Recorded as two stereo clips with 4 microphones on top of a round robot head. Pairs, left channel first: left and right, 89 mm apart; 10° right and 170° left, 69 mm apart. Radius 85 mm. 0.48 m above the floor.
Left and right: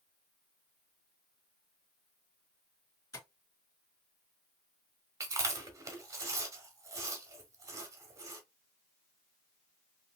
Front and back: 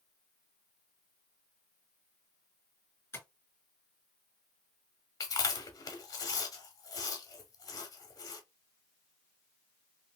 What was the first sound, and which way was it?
Tapping, 40° left.